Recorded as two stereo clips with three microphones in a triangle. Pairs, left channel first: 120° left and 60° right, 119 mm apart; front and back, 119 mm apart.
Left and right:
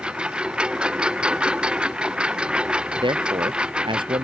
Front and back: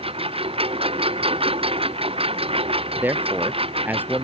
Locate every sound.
0.0 s a lawn mower: 140° right
3.0 s a man speaking: 105° right